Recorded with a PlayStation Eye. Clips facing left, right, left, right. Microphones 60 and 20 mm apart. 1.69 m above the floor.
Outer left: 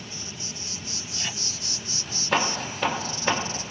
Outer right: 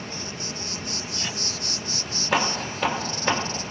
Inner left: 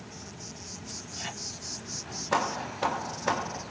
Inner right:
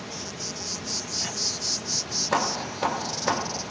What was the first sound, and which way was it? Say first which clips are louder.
An insect: outer right 5 dB, inner right 9 dB; 55° right (ahead or behind).